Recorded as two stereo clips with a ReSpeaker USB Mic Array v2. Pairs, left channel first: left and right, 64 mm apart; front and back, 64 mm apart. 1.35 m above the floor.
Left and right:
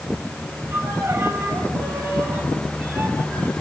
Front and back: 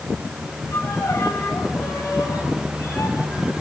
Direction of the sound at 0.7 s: 45° right.